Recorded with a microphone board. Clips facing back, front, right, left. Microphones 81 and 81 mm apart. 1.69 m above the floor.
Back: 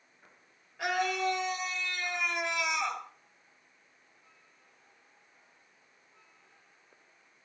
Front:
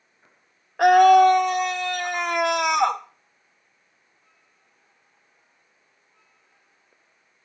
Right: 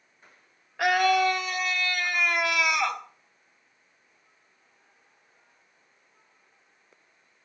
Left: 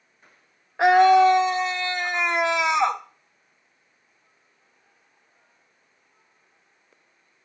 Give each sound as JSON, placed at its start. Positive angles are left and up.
{"t": 0.8, "sound": "a scream", "azimuth_deg": 25, "distance_m": 1.7}